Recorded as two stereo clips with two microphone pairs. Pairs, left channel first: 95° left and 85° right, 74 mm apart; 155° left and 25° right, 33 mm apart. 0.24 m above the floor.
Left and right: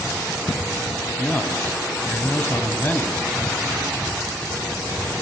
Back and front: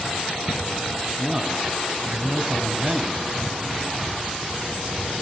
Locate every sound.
1.2 s a man speaking: 45° left, 1.3 m